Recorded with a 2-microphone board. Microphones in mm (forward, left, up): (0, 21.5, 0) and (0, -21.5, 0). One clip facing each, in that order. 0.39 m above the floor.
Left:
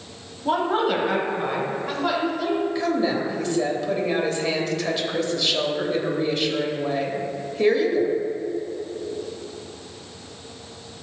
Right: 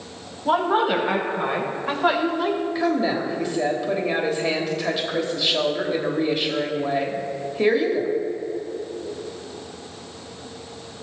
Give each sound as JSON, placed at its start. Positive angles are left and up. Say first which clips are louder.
{"t": 0.5, "sound": "a woman speaking", "louder": "right 2 dB", "side_deg": -10, "distance_m": 2.5}
{"t": 2.8, "sound": "a woman speaking", "louder": "right 1 dB", "side_deg": -10, "distance_m": 1.4}